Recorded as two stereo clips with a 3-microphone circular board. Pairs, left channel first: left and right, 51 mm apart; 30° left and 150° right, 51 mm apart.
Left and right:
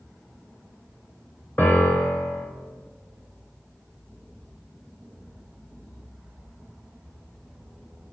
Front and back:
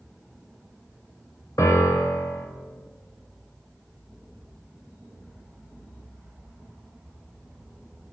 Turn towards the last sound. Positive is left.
turn(degrees=40)